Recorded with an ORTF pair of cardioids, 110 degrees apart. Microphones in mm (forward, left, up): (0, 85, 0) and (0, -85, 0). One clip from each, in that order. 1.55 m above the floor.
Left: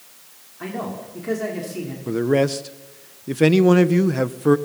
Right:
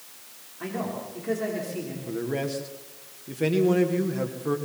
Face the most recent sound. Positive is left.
turn(degrees=55)